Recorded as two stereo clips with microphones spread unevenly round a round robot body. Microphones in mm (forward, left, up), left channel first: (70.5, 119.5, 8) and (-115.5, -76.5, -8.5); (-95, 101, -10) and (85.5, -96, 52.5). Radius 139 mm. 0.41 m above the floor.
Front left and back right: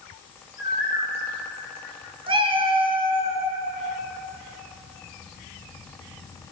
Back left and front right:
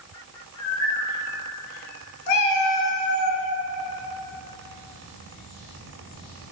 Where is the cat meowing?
155° left, 0.8 m.